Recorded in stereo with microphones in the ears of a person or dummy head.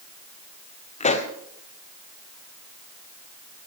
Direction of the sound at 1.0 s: 35° left (ahead or behind).